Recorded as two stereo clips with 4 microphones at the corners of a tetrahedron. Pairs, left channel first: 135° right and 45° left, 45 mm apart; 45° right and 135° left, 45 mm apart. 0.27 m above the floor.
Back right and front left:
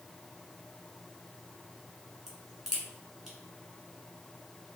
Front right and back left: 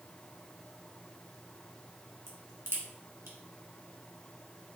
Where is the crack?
125° left, 1.4 m.